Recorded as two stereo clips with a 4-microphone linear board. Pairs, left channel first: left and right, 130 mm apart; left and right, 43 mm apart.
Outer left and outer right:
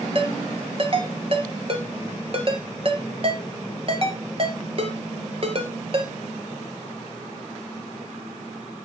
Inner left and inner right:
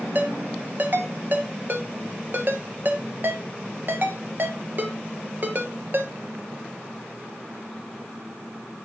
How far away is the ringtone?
About 1.6 m.